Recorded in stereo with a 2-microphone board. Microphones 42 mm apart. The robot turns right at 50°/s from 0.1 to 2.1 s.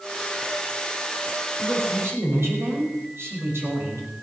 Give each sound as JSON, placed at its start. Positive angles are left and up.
{"t": 1.6, "sound": "a woman speaking", "side_deg": -55, "distance_m": 5.5}